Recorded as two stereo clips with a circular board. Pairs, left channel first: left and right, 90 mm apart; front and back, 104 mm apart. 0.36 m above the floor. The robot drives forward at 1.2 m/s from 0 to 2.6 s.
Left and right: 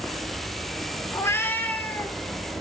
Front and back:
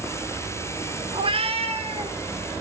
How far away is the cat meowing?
About 0.7 m.